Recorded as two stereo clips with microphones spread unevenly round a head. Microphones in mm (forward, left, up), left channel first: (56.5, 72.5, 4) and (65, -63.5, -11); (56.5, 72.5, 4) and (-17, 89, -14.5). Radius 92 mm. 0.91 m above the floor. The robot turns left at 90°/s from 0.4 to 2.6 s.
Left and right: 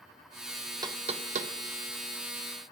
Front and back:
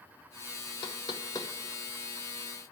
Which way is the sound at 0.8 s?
30° right.